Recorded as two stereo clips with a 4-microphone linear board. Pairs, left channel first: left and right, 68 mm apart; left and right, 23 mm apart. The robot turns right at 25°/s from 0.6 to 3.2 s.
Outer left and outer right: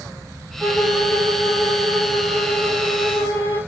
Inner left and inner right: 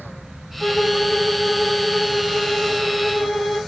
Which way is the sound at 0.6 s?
60° left.